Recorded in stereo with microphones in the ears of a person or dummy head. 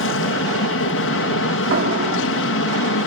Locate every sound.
0.0 s an aircraft: 60° left (ahead or behind)
1.7 s a door slam: 60° right (ahead or behind)